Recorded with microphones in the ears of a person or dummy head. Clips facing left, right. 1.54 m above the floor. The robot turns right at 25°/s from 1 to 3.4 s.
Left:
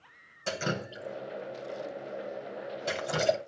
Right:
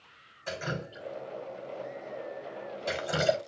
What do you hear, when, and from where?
0.5 s dripping: 45° left (ahead or behind), 1.7 m; by 3.4 s 15° right (ahead or behind), 1.7 m